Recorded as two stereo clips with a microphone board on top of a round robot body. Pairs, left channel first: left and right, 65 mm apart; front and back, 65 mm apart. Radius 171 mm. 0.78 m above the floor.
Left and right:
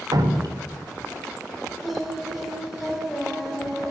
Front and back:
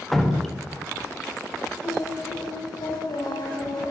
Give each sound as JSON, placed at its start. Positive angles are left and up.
{"t": 0.1, "sound": "dripping", "azimuth_deg": -85, "distance_m": 1.8}
{"t": 1.8, "sound": "singing", "azimuth_deg": -5, "distance_m": 2.5}